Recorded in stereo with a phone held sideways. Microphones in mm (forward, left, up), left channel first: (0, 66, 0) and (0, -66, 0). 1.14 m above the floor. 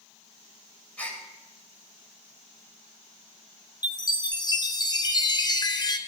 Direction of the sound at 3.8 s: 30° left (ahead or behind).